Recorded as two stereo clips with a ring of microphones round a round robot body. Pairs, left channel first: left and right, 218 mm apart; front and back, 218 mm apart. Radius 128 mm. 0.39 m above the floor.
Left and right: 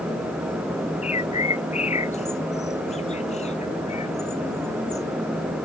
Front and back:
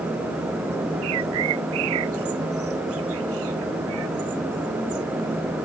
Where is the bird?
150° left.